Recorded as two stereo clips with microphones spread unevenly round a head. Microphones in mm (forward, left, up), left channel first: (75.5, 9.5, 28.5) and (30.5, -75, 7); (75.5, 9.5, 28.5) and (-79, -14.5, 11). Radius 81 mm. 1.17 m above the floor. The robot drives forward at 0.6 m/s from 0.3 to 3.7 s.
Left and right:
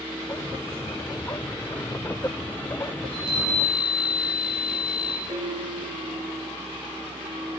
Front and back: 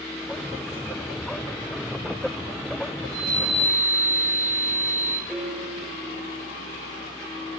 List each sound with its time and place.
3.0 s a chime: 40° left, 5.5 m
5.3 s a piano: 80° right, 2.5 m